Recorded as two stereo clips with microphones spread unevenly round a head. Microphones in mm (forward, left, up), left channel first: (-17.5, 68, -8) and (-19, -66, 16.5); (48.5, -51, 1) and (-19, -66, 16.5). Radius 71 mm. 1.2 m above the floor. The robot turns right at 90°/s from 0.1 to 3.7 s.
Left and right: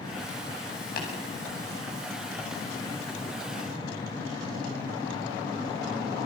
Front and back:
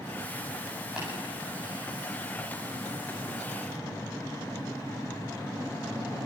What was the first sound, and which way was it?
Tapping, 105° left.